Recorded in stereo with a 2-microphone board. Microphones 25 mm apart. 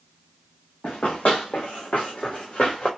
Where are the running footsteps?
75° left (ahead or behind), 1.3 m; by 2.9 s 50° left (ahead or behind), 1.4 m.